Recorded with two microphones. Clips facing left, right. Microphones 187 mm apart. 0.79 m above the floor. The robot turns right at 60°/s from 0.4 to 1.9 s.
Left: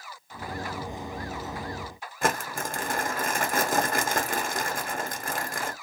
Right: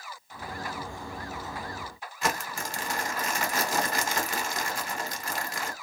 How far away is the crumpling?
About 0.6 m.